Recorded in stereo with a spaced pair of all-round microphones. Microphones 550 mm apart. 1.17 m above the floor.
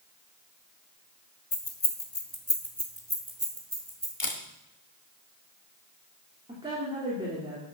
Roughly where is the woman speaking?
Centre.